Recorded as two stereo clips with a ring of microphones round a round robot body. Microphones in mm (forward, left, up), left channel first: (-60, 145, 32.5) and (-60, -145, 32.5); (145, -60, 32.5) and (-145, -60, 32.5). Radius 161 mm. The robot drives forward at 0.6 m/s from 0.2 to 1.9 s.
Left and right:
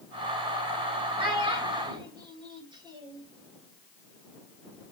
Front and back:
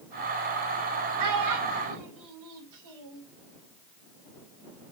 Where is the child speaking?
160° right, 3 m; by 3.2 s 165° right, 3.5 m.